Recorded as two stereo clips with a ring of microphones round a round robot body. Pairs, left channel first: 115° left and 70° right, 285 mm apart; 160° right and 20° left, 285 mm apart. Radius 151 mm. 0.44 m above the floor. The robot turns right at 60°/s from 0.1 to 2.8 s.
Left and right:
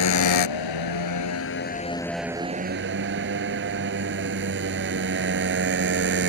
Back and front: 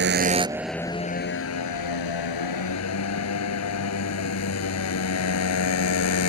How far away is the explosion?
No explosion in this recording.